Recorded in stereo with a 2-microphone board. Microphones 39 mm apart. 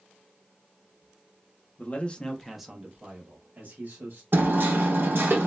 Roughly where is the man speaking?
Left.